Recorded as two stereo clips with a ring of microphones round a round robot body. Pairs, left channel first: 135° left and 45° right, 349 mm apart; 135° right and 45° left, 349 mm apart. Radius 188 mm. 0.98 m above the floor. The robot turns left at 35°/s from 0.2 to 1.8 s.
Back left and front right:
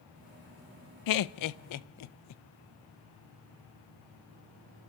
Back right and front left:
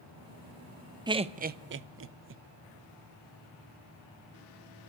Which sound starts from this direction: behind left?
Laughter, at 1.1 s.